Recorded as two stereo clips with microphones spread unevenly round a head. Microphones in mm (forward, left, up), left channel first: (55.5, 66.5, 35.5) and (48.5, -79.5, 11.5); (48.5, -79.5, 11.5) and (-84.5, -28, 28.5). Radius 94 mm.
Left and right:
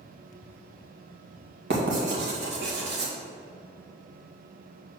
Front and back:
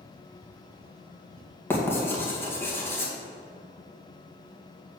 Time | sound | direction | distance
1.7 | writing | 95° right | 2 m